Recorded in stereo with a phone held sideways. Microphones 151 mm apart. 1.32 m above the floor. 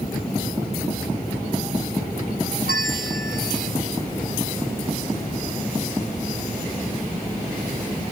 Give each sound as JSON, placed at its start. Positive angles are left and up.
{"t": 2.7, "sound": "a bell", "side_deg": -65}